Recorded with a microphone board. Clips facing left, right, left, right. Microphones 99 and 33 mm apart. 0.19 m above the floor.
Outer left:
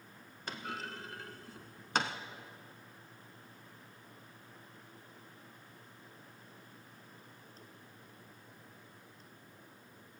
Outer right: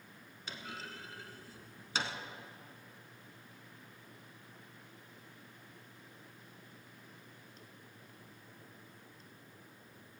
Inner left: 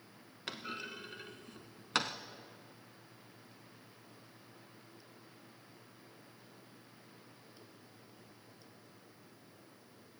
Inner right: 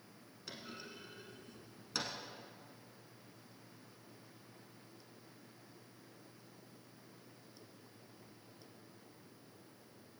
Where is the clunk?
55° left (ahead or behind), 0.7 m.